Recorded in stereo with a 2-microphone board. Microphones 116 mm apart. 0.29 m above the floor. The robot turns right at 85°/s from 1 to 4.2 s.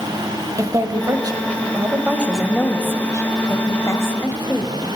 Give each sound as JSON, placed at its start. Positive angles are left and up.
{"t": 0.6, "sound": "a woman speaking", "azimuth_deg": -120, "distance_m": 1.3}